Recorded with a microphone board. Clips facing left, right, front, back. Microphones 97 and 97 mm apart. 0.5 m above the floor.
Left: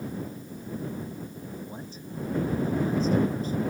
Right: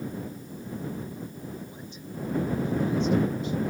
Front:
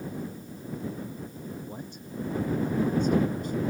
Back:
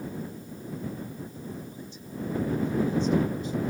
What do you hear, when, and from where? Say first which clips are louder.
1.7 s a man speaking: left 1 dB, front 1 dB; 35° left; by 3.6 s 40° left